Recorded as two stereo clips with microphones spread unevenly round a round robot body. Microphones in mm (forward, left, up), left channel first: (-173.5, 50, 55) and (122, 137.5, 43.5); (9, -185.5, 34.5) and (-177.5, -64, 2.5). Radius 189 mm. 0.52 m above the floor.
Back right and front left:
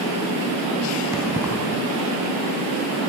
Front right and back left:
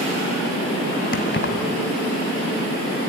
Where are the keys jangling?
65° right, 2.5 m.